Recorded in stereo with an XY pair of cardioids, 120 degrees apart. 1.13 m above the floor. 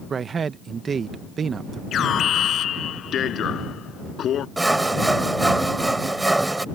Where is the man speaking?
40° right.